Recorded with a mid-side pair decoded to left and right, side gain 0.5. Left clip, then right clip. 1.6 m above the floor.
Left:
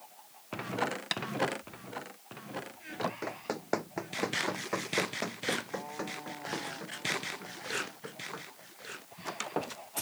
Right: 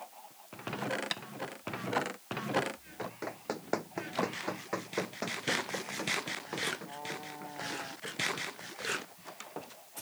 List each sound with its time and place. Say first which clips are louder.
1.1 s tapping: left 3 dB; 15° left
3.0 s running footsteps: left 6 dB; 10° left